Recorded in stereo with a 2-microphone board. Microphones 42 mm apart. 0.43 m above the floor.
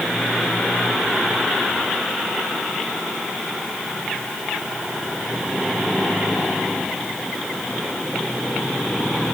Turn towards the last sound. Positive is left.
No sound to turn to.